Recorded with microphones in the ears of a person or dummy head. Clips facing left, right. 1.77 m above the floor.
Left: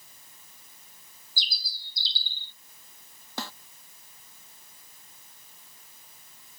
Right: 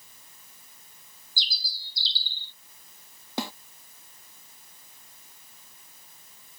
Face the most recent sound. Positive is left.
turn(degrees=-15)  # may be behind; listen again after turning